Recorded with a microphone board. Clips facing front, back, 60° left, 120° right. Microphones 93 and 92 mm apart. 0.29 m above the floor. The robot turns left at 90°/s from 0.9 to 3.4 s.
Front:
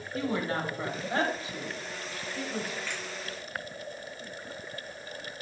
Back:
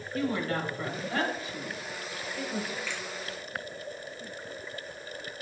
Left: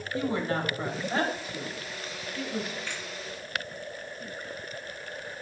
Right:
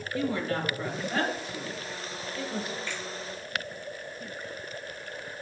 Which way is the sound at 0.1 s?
35° left.